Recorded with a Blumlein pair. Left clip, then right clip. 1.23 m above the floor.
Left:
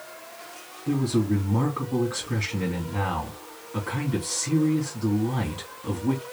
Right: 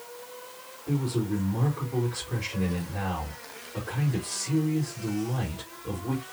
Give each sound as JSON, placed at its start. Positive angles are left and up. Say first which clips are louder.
{"t": 0.9, "sound": "a man speaking", "louder": "left 5 dB", "azimuth_deg": 50, "distance_m": 2.5}